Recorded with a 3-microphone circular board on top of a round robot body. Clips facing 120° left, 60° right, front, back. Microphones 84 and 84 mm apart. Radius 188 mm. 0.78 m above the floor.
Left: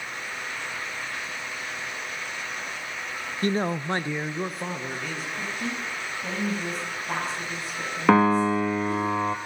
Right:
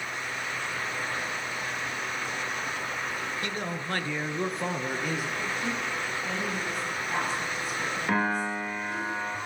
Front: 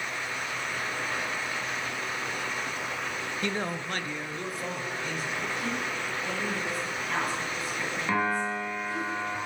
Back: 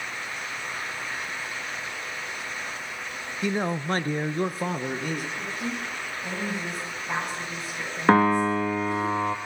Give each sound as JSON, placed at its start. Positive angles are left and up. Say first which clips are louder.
{"t": 3.4, "sound": "a man speaking", "louder": "left 7 dB, back 7 dB", "azimuth_deg": 105, "distance_m": 1.1}
{"t": 5.4, "sound": "a woman speaking", "louder": "right 1 dB, even", "azimuth_deg": 115, "distance_m": 7.5}
{"t": 8.1, "sound": "a piano", "louder": "left 10 dB, back 10 dB", "azimuth_deg": 140, "distance_m": 0.6}